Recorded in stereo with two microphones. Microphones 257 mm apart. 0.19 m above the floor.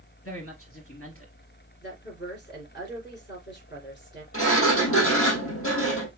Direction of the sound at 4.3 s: 60° left (ahead or behind).